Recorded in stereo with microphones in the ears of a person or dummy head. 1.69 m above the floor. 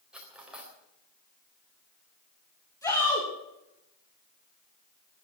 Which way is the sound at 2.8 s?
15° left (ahead or behind).